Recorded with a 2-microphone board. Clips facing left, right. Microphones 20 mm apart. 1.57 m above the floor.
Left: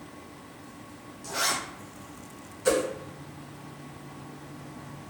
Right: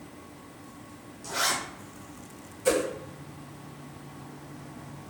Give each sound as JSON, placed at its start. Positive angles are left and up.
{"t": 1.2, "sound": "a zipper", "side_deg": -15, "distance_m": 1.3}
{"t": 2.6, "sound": "a whoosh", "side_deg": 15, "distance_m": 1.6}